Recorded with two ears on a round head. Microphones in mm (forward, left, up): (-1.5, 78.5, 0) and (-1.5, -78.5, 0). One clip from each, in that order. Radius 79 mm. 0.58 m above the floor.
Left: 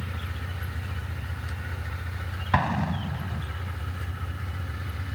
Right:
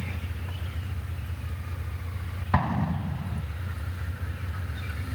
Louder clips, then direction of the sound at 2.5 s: Left 2 dB; 75° left (ahead or behind).